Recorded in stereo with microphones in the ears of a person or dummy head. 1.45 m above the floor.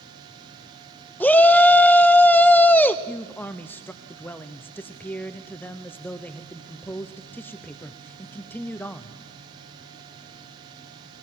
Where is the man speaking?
10° left (ahead or behind), 0.7 m.